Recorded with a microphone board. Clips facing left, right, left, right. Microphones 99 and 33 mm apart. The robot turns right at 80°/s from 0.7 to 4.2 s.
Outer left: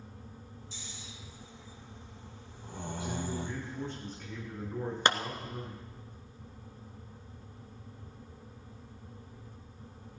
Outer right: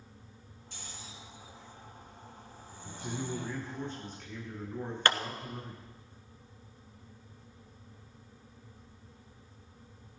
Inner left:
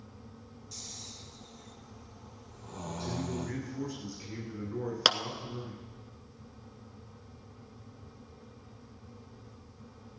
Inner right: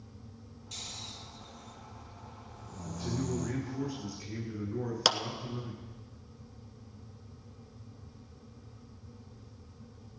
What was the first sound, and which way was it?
Snoring, 60° right (ahead or behind).